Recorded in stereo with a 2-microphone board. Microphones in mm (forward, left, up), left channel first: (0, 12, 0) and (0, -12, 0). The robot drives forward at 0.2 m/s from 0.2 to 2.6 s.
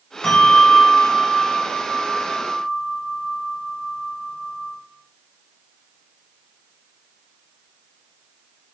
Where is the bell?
45° left (ahead or behind), 1.5 m; by 4.7 s 50° left (ahead or behind), 1.4 m.